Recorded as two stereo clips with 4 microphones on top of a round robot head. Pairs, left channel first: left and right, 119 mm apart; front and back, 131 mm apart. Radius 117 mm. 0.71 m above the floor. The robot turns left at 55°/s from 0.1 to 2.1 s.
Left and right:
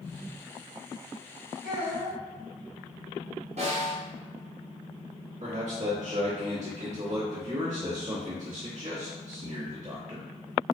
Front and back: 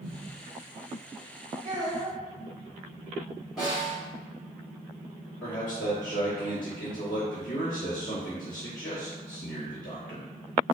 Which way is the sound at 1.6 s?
175° left.